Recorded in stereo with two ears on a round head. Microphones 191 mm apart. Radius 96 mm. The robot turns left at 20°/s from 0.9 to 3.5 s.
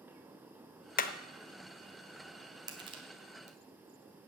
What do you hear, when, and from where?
1.0 s hammering: 40° left (ahead or behind), 0.9 m; by 1.1 s 45° left (ahead or behind), 0.9 m
2.7 s crushing: 20° right (ahead or behind), 1.7 m; by 3.6 s 35° right (ahead or behind), 1.7 m